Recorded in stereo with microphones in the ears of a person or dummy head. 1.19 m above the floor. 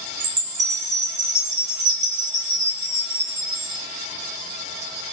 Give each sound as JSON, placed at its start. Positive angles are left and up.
{"t": 0.2, "sound": "a chime", "side_deg": -35, "distance_m": 1.6}